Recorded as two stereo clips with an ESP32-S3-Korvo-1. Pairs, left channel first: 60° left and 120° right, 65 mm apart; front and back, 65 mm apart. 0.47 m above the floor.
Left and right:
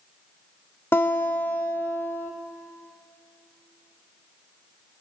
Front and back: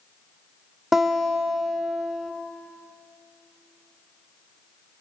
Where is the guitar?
100° left, 1.8 m.